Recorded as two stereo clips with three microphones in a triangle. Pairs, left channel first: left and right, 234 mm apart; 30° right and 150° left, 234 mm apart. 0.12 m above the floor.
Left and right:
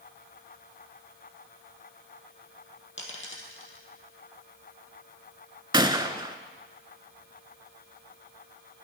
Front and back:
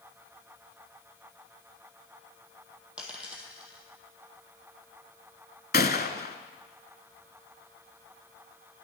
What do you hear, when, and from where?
3.0 s a dropped coin: 65° left, 1.6 m
5.7 s a gunshot: 25° right, 0.5 m